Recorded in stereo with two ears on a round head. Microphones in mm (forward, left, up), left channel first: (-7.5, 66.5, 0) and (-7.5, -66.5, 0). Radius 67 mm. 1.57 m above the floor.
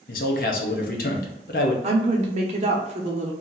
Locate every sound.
0.1 s a man speaking: 60° left (ahead or behind), 0.9 m
1.8 s a woman speaking: 45° right (ahead or behind), 0.8 m